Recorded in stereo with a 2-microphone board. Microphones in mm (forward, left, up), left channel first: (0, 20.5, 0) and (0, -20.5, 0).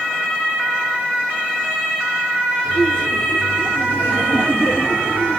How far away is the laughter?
About 4 m.